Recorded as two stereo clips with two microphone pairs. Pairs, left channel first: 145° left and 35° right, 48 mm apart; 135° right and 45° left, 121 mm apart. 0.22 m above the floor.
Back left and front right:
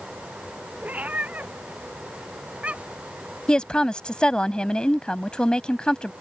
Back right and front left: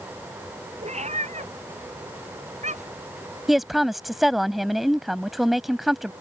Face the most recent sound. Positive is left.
turn(degrees=130)